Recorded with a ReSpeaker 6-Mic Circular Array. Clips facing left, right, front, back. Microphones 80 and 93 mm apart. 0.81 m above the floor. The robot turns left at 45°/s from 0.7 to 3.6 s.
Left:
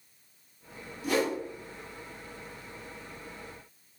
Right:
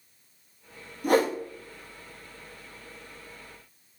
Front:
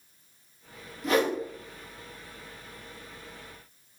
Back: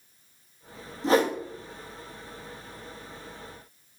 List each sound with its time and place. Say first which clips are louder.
1.0 s a whoosh: right 5 dB, back 3 dB; 120° right, 0.6 m; by 1.4 s 135° right, 0.6 m